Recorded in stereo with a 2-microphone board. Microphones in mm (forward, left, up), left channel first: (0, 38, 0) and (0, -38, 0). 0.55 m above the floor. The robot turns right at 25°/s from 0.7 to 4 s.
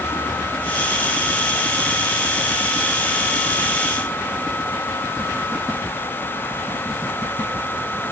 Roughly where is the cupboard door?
I don't hear a cupboard door.